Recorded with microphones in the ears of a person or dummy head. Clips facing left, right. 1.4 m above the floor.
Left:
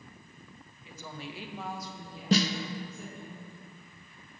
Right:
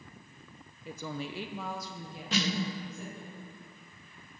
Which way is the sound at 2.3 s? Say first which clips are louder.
Left 5 dB; 30° left (ahead or behind).